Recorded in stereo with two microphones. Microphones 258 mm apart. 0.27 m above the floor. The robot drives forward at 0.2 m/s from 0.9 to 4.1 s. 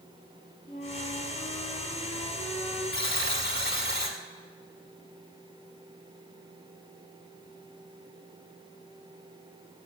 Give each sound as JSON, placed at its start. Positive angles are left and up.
{"t": 0.7, "sound": "a flute", "side_deg": 25, "distance_m": 4.0}
{"t": 2.9, "sound": "a buzzer", "side_deg": 50, "distance_m": 1.4}